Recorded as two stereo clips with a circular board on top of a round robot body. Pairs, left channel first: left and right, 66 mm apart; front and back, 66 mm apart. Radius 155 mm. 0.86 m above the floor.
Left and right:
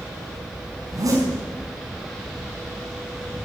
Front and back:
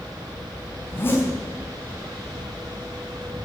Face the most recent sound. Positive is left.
turn(degrees=-55)